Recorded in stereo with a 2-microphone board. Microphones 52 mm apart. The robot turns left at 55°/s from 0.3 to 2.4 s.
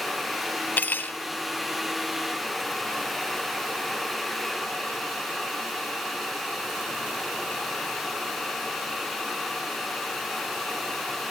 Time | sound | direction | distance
0.8 | cutlery clinking | 40° left (ahead or behind) | 0.6 m